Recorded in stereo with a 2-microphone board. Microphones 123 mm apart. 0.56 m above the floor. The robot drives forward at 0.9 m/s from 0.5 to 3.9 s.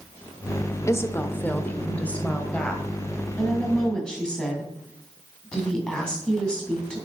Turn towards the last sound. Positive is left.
turn(degrees=5)  # may be behind; listen again after turning